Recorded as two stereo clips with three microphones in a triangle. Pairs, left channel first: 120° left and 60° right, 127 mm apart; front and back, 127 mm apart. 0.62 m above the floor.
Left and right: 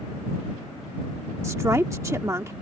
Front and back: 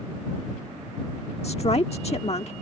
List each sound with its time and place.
1.4 s a woman speaking: straight ahead